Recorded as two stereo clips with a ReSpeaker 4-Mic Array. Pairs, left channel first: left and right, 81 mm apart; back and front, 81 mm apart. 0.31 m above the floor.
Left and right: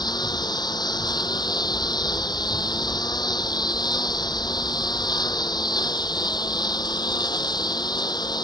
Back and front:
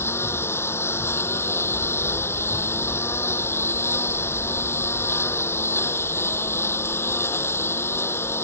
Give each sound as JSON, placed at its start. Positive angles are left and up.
{"t": 0.0, "sound": "a lawn mower", "azimuth_deg": 120}